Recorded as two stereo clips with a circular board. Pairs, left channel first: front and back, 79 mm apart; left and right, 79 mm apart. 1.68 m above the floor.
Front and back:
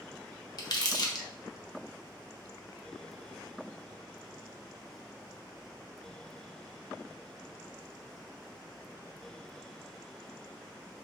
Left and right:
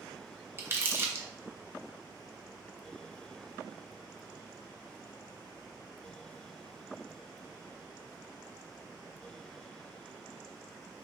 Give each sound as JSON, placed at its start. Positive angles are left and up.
{"t": 0.6, "sound": "crumpling", "azimuth_deg": -35, "distance_m": 1.0}